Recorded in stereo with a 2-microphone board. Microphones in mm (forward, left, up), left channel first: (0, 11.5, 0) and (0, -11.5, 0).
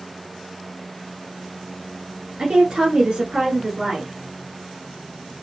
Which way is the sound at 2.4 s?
45° right (ahead or behind).